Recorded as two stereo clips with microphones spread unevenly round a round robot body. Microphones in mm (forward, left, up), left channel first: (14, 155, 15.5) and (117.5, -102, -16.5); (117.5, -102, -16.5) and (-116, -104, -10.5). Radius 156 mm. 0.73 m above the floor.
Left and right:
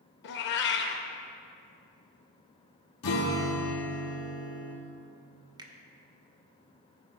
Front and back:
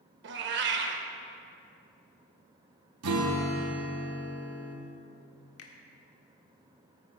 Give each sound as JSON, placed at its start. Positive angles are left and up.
{"t": 0.2, "sound": "a cat meowing", "azimuth_deg": 150, "distance_m": 0.6}
{"t": 3.0, "sound": "a guitar", "azimuth_deg": 155, "distance_m": 0.8}
{"t": 5.6, "sound": "a finger snap", "azimuth_deg": 5, "distance_m": 1.0}